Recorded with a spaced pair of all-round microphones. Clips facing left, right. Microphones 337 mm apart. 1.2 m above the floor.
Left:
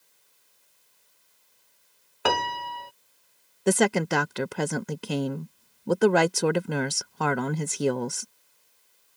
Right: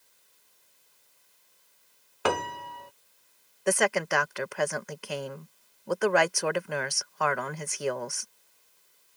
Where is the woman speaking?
50° left (ahead or behind).